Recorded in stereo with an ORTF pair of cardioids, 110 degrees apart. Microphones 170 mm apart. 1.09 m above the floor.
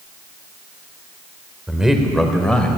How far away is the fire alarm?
No fire alarm in this recording.